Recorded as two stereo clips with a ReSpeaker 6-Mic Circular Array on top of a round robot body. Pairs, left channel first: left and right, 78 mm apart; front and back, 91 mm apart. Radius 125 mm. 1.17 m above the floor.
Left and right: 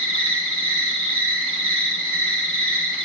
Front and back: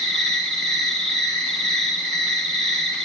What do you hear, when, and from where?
0.0 s an insect: 85° right, 3 m